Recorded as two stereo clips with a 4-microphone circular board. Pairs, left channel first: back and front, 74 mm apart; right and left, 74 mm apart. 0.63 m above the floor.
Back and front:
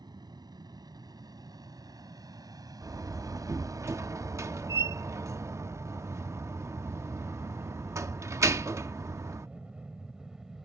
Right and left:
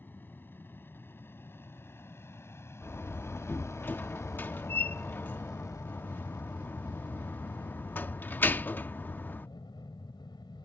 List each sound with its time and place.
0.0 s an aircraft: 25° right; by 10.7 s 85° right
2.8 s a door slam: 35° right